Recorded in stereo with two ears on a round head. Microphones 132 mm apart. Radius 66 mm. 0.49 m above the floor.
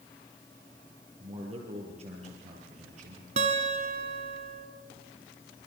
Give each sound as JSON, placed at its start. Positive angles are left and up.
{"t": 1.2, "sound": "a man speaking", "side_deg": -40, "distance_m": 9.0}
{"t": 3.4, "sound": "a guitar", "side_deg": -50, "distance_m": 3.5}